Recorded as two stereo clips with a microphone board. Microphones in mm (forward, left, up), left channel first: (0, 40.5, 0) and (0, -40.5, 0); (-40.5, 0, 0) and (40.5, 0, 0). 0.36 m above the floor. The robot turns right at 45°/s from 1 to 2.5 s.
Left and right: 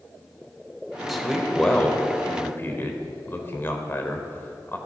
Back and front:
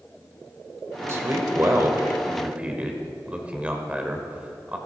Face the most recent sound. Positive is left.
turn(degrees=60)